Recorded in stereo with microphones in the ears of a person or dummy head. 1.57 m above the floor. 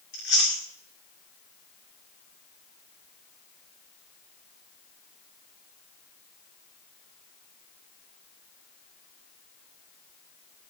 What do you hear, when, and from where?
0.1 s chewing: 50° left (ahead or behind), 2.5 m